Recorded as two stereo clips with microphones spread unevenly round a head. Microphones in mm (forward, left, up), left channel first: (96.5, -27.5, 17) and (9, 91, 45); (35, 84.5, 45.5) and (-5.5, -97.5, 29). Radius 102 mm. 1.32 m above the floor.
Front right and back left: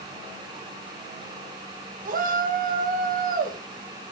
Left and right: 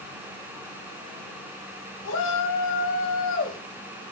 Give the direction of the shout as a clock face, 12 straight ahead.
9 o'clock.